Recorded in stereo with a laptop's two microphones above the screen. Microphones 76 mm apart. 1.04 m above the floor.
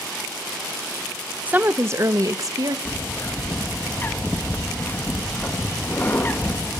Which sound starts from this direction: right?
A woman speaking, at 1.5 s.